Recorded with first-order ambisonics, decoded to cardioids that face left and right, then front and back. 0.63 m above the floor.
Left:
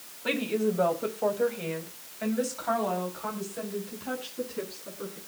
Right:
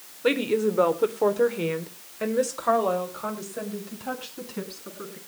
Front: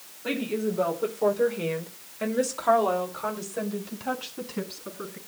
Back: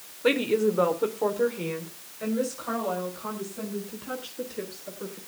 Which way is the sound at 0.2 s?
130° right.